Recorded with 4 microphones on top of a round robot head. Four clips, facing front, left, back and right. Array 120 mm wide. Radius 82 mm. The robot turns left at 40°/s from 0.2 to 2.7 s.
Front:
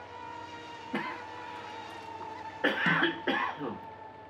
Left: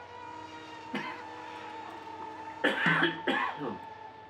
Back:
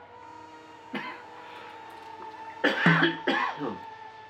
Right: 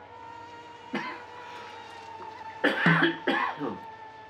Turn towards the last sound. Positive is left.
turn(degrees=-150)